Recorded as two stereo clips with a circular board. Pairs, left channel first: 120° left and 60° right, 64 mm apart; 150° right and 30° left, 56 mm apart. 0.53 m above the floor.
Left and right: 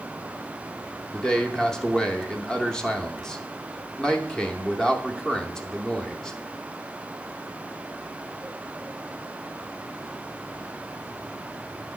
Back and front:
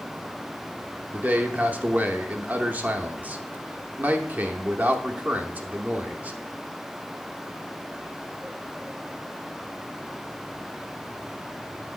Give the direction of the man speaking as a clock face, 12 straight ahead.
10 o'clock.